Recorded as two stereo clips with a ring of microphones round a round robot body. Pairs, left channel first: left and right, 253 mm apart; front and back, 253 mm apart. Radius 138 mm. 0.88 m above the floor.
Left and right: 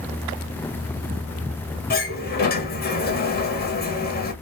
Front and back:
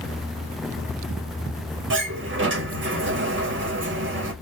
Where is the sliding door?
140° left, 1.4 m.